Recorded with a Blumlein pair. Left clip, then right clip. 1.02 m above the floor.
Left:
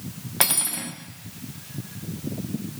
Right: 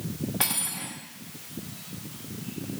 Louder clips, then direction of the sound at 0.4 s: Left 6 dB; 65° left.